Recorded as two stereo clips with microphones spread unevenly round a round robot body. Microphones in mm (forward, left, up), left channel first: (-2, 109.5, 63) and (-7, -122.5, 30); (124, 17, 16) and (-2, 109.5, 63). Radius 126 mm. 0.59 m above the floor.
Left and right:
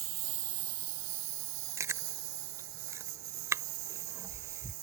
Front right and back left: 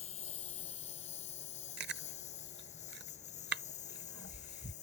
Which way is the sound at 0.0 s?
100° right.